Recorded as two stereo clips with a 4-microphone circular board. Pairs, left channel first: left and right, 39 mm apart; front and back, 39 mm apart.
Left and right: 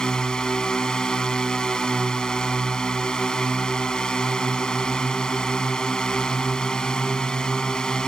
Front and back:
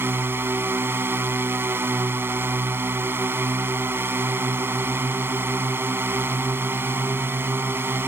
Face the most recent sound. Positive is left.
turn(degrees=160)